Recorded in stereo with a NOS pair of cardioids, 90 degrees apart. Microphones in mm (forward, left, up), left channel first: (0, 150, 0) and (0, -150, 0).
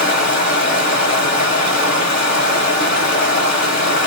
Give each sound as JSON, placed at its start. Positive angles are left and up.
{"t": 0.0, "sound": "running water", "azimuth_deg": 40, "distance_m": 1.1}